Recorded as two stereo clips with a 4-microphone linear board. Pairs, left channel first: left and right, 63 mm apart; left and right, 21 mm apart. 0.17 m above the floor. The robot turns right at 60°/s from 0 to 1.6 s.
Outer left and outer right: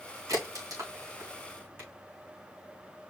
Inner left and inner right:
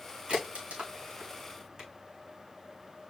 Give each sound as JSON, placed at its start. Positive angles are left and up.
{"t": 0.3, "sound": "a crack", "side_deg": -60, "distance_m": 4.0}